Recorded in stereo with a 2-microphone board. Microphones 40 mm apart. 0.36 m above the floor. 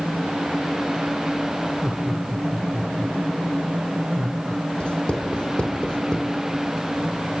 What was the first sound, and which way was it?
Laughter, 15° right (ahead or behind).